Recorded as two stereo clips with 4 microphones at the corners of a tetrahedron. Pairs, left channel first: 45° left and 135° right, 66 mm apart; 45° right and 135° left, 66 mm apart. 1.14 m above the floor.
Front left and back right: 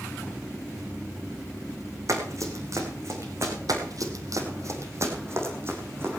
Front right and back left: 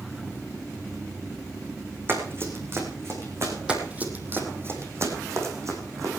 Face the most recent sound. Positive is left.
turn(degrees=170)